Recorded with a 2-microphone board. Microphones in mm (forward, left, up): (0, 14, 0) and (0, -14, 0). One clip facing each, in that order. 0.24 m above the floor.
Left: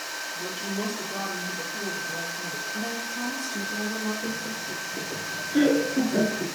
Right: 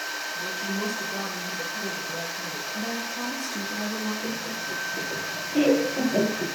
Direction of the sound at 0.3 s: 75° left (ahead or behind).